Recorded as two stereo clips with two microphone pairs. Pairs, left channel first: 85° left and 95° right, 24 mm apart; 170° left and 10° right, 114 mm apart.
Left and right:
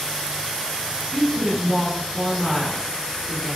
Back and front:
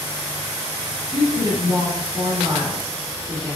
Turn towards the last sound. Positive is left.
turn(degrees=20)